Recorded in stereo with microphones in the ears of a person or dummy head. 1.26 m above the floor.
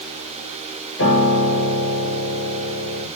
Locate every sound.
1.0 s a piano: 80° left, 5.5 m